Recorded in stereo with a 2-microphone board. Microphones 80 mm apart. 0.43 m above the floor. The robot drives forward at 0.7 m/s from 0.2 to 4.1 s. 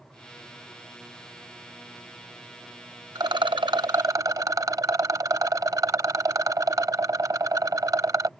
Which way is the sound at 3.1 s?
60° right (ahead or behind).